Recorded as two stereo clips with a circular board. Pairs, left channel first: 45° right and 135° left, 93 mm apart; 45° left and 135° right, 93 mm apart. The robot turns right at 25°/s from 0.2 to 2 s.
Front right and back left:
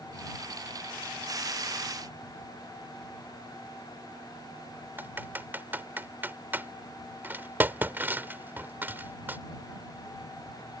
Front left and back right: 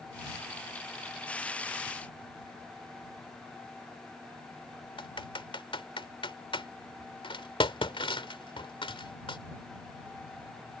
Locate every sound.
5.0 s typing on a keyboard: 65° left